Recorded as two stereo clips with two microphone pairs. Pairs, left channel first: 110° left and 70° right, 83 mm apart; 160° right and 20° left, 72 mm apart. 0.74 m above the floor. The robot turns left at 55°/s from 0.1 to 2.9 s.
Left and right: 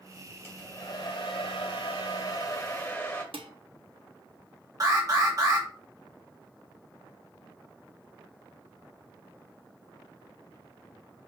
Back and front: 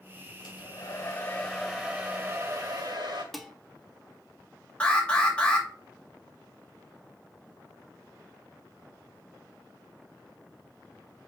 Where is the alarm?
90° right, 2 m.